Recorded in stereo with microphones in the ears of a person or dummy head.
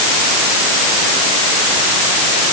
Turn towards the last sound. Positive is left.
No sound to turn to.